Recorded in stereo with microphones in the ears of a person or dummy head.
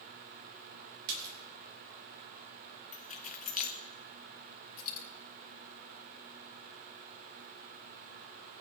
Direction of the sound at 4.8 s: 45° left (ahead or behind).